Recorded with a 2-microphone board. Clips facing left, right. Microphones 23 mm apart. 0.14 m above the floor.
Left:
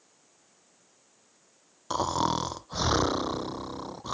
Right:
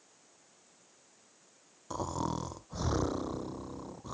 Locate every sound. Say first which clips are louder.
1.9 s snoring: left 8 dB; 55° left (ahead or behind)